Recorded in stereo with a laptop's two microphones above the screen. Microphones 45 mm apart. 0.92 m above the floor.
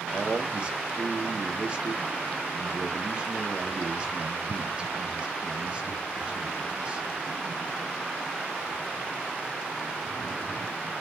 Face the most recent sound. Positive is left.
turn(degrees=-25)  # may be behind; listen again after turning